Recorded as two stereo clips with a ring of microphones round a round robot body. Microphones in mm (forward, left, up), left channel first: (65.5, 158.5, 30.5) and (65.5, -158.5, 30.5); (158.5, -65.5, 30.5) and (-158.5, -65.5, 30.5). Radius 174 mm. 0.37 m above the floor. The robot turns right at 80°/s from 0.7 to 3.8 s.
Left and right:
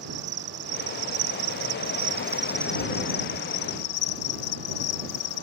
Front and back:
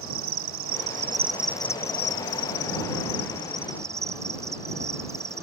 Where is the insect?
150° right; by 5.4 s 100° left.